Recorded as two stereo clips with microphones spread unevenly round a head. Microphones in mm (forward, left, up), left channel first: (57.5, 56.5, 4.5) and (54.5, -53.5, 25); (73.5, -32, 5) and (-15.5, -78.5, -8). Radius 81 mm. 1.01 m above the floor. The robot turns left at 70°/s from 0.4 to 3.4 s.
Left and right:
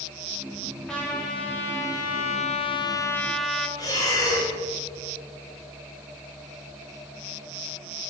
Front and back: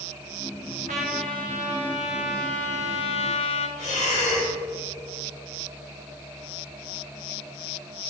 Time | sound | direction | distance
0.9 | a trumpet | 175° left | 1.1 m
3.8 | breathing | 35° left | 3 m